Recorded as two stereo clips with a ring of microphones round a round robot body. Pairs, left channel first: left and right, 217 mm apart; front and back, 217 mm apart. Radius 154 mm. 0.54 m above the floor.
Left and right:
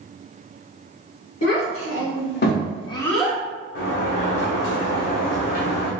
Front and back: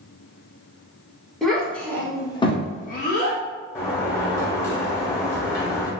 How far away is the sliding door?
About 1.4 m.